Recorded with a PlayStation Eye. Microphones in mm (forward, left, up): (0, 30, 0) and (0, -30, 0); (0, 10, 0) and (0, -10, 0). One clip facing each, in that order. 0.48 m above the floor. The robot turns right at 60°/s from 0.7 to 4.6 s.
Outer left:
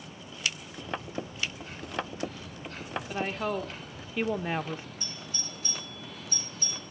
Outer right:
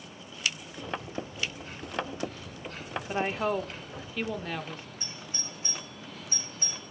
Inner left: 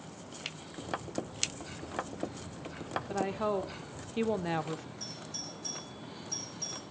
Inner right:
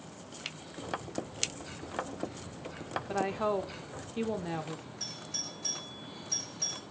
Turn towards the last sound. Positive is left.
turn(degrees=-30)  # may be behind; listen again after turning